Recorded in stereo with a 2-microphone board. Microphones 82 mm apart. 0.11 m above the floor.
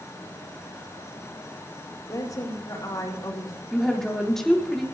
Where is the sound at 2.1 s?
45° left (ahead or behind), 5 m.